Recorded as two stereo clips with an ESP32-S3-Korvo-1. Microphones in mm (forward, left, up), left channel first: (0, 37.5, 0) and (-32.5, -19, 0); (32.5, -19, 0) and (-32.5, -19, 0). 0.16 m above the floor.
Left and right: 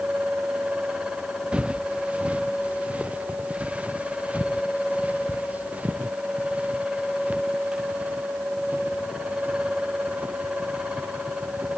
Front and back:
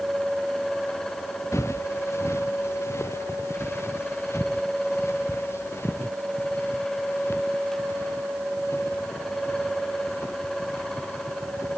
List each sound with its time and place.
1.5 s footsteps: 45° right; by 11.8 s 50° right